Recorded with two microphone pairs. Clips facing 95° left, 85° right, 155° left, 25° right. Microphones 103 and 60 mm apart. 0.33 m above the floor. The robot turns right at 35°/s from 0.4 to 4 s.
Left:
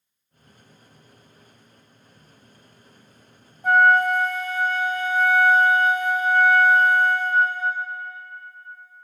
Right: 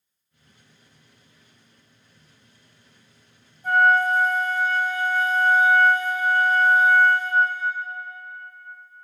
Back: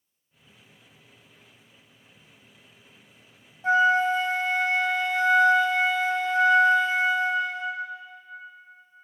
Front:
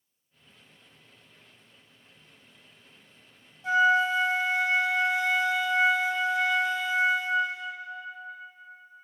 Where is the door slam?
No door slam in this recording.